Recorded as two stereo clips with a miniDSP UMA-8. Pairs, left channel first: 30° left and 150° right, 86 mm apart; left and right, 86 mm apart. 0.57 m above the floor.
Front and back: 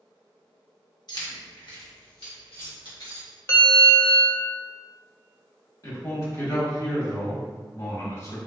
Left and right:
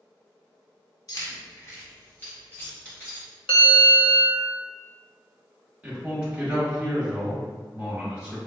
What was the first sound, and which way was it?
Keys jangling, 55° left.